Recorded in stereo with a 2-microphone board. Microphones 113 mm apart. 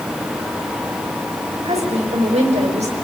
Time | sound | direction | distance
1.6 | a woman speaking | 75° right (ahead or behind) | 7 m